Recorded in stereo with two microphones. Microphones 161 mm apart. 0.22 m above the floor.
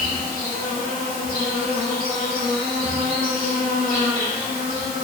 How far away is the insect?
About 1.6 m.